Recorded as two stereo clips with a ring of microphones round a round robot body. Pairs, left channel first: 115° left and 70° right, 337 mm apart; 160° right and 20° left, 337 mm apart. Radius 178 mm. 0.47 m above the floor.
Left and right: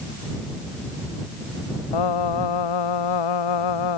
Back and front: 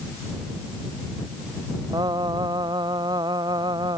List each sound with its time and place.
1.9 s singing: 100° left